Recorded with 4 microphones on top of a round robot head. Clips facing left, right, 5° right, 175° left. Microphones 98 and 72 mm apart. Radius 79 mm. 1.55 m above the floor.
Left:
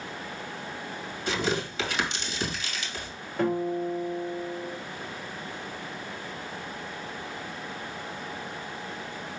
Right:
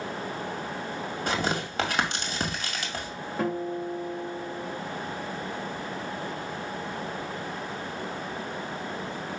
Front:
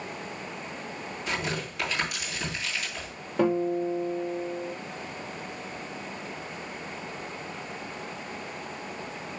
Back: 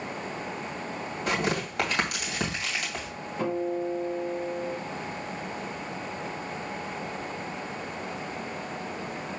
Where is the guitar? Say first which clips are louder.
Left 3 dB, front 4 dB; 5° right, 2.5 m.